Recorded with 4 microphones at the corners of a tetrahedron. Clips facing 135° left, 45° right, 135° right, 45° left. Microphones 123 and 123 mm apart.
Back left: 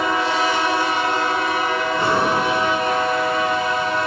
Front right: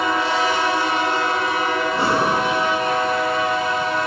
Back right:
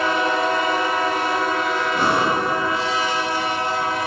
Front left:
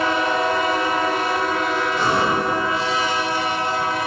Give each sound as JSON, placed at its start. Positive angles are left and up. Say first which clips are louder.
{"t": 1.9, "sound": "breathing", "louder": "back left 1 dB, back right 1 dB", "azimuth_deg": -100, "distance_m": 9.5}